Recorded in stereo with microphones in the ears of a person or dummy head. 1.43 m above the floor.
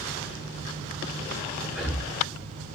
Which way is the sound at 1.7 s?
5° right (ahead or behind).